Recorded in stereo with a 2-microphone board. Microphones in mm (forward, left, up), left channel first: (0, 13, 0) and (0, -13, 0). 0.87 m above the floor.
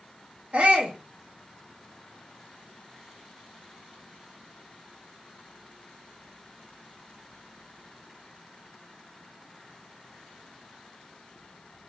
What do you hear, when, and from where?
0.5 s a shout: 50° right (ahead or behind), 0.9 m